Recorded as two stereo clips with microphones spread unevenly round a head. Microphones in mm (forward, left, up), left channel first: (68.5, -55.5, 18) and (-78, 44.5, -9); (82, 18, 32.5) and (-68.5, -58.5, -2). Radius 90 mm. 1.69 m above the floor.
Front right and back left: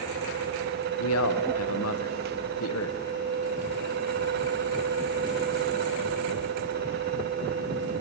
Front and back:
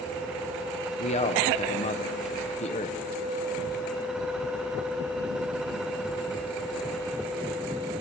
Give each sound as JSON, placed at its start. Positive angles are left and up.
{"t": 1.0, "sound": "a man speaking", "azimuth_deg": -25, "distance_m": 1.5}